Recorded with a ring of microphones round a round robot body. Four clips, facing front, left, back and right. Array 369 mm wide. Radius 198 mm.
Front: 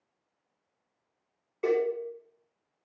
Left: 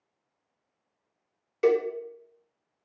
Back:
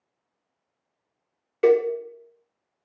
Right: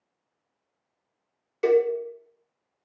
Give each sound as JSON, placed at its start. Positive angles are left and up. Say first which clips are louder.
{"t": 1.6, "sound": "a cowbell", "louder": "right 3 dB, back 8 dB", "azimuth_deg": 175, "distance_m": 0.6}